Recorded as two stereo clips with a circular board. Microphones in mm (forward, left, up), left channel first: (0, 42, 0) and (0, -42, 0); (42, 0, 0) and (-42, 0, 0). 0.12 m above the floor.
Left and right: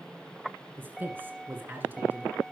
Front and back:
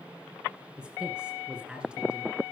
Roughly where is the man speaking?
Behind right.